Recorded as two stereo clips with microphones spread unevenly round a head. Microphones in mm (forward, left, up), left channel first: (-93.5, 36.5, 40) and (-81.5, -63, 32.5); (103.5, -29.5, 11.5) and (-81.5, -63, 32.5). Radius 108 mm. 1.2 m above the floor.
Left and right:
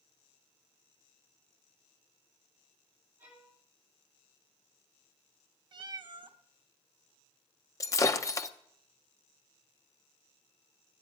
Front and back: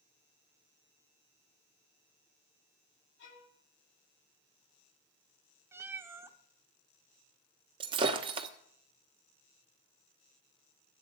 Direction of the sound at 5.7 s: 105° right.